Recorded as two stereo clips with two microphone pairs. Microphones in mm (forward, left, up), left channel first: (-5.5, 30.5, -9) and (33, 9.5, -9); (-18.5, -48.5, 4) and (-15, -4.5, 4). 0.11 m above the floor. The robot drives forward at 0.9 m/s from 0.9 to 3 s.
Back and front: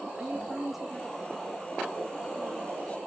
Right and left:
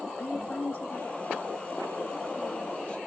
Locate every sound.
0.2 s a woman speaking: 110° right, 1.3 m; by 3.0 s 160° right, 2.5 m